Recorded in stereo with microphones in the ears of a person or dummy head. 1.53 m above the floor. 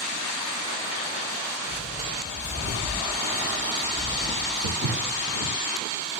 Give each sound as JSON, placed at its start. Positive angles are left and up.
{"t": 1.7, "sound": "footsteps", "side_deg": 35, "distance_m": 2.0}
{"t": 4.6, "sound": "footsteps", "side_deg": -55, "distance_m": 2.5}